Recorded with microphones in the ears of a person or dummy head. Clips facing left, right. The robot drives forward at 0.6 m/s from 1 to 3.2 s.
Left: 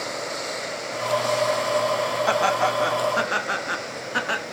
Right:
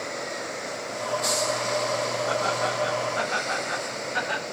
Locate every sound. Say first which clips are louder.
2.3 s laughter: left 4 dB; 75° left (ahead or behind), 1.7 m; by 4.5 s 60° left (ahead or behind), 1.9 m